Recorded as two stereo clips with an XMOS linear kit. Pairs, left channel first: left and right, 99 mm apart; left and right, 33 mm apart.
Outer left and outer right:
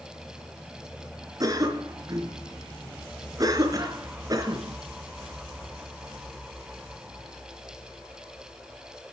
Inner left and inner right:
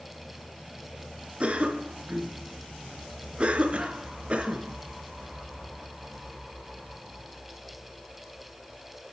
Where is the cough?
40° right (ahead or behind), 3.5 m.